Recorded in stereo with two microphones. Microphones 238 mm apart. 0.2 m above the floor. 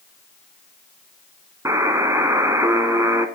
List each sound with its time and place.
1.6 s a buzzer: 15° right (ahead or behind), 0.8 m